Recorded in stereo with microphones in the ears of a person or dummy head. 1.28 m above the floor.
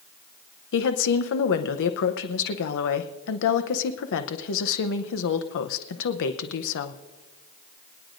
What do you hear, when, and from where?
0.7 s a woman speaking: 60° left (ahead or behind), 0.7 m